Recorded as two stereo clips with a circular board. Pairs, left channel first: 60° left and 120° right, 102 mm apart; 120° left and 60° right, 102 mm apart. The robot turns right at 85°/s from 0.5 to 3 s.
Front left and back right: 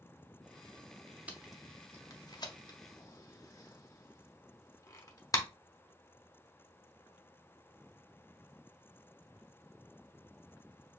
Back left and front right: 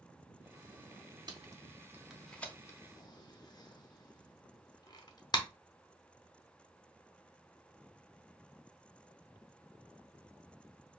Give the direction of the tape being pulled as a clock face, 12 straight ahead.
2 o'clock.